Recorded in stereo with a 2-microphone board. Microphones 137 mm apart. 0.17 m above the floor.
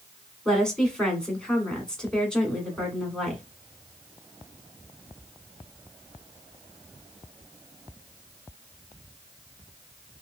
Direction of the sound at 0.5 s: 5° left (ahead or behind).